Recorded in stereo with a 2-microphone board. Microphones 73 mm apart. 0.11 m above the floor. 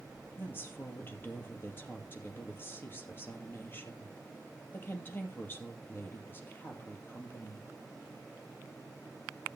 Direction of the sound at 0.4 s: 30° left (ahead or behind).